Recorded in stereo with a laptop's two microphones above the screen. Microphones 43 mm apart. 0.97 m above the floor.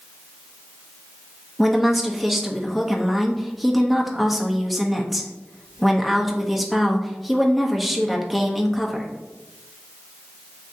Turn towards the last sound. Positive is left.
turn(degrees=0)  # may be behind; listen again after turning